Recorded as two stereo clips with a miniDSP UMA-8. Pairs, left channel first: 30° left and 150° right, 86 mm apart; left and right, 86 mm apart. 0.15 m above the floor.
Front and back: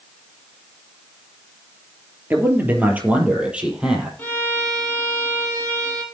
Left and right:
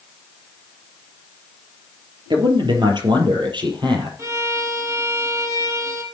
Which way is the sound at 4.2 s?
40° right.